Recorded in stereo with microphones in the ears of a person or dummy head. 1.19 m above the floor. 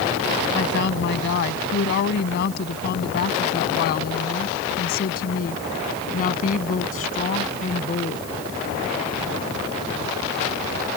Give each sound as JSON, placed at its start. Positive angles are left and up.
{"t": 0.6, "sound": "a woman speaking", "side_deg": 65}